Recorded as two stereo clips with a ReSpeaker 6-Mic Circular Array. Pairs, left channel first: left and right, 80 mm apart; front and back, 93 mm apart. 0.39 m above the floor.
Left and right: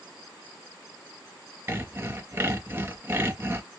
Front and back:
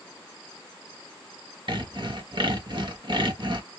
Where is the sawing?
150° right, 0.6 m.